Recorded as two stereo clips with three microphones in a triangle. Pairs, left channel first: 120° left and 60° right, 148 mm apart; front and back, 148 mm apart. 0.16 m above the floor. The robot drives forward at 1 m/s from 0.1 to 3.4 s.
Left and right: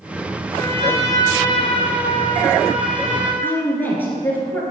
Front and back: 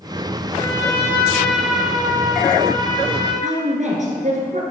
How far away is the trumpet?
About 2 m.